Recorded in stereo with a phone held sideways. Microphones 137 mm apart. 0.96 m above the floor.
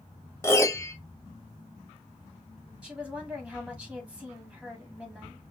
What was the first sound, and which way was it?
A piano, 20° left (ahead or behind).